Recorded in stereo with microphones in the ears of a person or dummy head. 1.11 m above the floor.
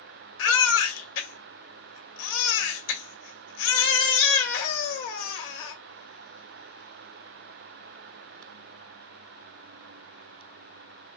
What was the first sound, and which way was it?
A baby crying, 65° left (ahead or behind).